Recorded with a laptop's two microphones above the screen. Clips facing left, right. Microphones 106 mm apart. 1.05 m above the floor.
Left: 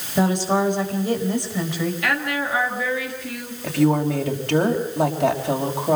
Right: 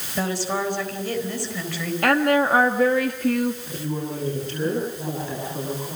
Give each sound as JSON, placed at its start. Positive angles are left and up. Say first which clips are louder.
{"t": 0.1, "sound": "a woman speaking", "louder": "left 6 dB", "side_deg": 20, "distance_m": 4.5}
{"t": 2.0, "sound": "a woman speaking", "louder": "right 6 dB", "side_deg": -50, "distance_m": 1.5}
{"t": 3.6, "sound": "a woman speaking", "louder": "left 10 dB", "side_deg": 80, "distance_m": 5.0}